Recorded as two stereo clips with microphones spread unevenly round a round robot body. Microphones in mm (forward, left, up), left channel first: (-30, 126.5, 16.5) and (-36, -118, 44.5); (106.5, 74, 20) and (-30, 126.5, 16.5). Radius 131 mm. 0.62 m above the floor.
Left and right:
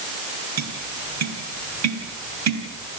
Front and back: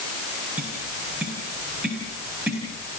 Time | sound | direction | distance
0.6 | tapping | 115° right | 3.5 m